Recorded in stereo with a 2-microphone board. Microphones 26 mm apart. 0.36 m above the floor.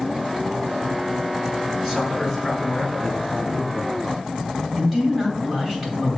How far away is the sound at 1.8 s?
About 2 m.